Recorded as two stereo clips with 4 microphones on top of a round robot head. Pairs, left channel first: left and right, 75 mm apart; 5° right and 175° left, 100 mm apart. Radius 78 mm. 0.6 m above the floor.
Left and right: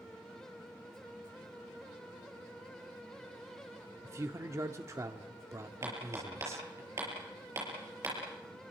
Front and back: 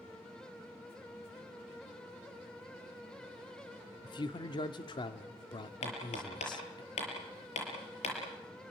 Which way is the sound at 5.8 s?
25° right.